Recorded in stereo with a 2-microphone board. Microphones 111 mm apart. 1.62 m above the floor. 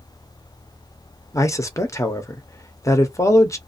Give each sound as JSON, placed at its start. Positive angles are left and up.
{"t": 1.3, "sound": "a man speaking", "side_deg": 30, "distance_m": 0.7}